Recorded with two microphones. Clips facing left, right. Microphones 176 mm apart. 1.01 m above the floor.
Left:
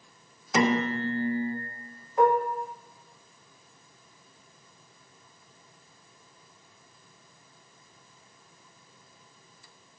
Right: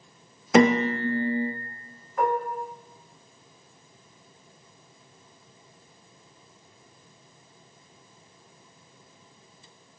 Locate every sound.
0.5 s a piano: 80° right, 0.5 m
2.2 s dishes clattering: 20° left (ahead or behind), 0.8 m